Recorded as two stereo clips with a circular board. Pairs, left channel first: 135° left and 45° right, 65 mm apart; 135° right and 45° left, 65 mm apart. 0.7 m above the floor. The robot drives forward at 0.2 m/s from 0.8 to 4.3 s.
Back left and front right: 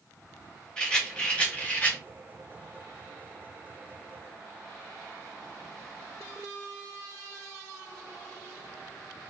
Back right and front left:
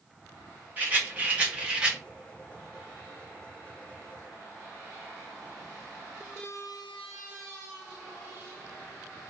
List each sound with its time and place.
0.8 s a rattle: 70° left, 0.8 m; by 2.0 s 105° left, 0.8 m